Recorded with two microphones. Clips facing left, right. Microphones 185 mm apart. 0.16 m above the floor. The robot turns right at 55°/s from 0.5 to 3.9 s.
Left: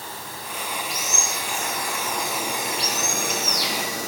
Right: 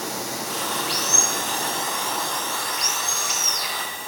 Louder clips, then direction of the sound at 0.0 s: Right 7 dB; 95° right.